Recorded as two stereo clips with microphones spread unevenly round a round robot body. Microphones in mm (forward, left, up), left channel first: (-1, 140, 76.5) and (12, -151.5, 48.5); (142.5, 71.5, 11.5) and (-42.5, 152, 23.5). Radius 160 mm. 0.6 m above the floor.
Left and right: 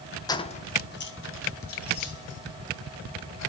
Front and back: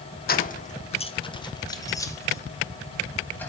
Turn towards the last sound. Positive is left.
turn(degrees=60)